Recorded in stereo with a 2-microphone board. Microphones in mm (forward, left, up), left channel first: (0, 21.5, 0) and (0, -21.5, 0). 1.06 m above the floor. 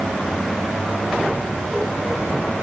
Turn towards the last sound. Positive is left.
No sound to turn to.